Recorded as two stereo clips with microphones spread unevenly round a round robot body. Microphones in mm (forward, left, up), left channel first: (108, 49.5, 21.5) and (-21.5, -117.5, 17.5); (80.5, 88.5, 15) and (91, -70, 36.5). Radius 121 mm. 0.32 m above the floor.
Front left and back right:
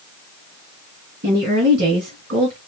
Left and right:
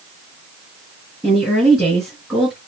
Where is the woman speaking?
175° right, 3 m.